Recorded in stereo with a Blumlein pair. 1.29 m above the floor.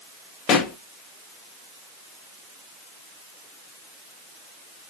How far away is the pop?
About 0.9 m.